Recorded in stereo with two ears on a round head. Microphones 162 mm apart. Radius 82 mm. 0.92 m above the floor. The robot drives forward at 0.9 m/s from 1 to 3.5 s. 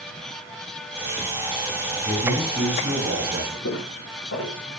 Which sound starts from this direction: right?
A man speaking, at 2.0 s.